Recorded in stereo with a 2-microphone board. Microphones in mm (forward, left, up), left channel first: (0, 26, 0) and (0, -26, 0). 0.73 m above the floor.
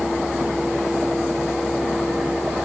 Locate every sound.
Only background noise.